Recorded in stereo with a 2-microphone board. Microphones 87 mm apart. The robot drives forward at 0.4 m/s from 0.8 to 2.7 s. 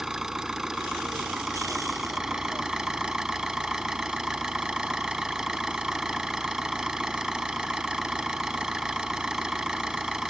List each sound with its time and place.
0.0 s an engine running: 5° right (ahead or behind); by 10.3 s 10° right (ahead or behind)